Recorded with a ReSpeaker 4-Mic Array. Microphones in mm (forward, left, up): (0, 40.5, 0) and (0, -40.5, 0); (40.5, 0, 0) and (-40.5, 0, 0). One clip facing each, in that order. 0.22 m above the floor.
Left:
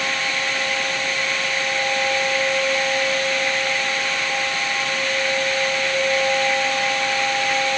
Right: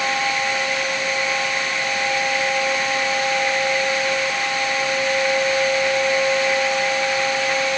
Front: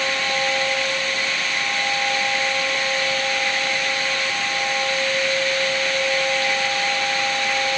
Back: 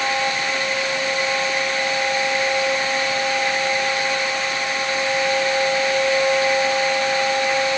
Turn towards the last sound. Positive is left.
No sound to turn to.